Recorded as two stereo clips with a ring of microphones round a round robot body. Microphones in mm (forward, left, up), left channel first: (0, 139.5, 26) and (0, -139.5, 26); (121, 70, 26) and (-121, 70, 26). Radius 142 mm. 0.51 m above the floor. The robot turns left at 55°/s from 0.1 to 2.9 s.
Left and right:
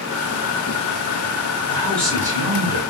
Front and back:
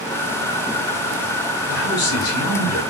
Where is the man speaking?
20° left, 1.8 m; by 2.8 s 40° right, 1.8 m.